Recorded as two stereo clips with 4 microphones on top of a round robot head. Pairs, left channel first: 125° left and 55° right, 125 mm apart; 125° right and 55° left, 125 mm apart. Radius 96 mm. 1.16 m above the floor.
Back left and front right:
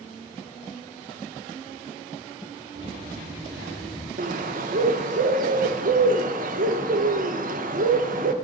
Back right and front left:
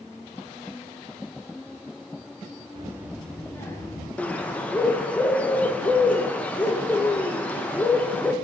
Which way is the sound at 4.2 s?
45° right.